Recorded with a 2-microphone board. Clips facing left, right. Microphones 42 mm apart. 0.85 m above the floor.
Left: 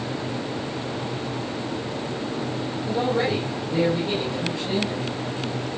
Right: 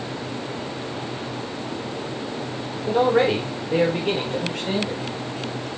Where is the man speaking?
70° right (ahead or behind), 3.5 m; by 5.0 s 65° right (ahead or behind), 4.5 m.